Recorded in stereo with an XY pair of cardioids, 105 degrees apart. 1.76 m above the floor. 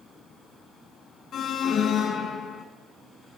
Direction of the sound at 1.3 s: 65° left.